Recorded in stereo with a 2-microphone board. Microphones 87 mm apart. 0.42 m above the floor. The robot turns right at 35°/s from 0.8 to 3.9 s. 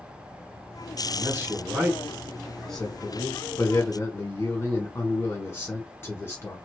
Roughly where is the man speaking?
Ahead right.